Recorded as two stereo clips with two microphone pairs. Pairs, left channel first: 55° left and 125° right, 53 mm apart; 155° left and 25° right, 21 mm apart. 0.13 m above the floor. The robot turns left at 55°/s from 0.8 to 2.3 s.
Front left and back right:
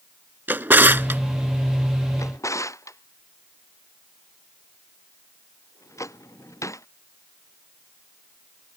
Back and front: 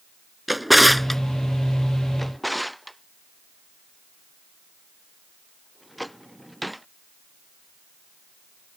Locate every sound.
0.5 s a drawer: 110° right; by 1.2 s 130° right
2.2 s a drawer: 70° left; by 6.9 s 65° left